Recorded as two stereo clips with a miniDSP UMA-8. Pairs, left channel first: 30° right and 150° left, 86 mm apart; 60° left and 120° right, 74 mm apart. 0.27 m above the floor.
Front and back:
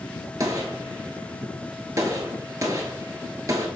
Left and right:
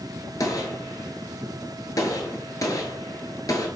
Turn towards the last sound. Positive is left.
turn(degrees=100)